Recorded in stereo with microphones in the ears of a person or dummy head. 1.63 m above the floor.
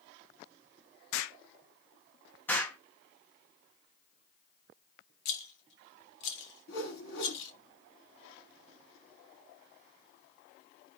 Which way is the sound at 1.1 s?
75° left (ahead or behind).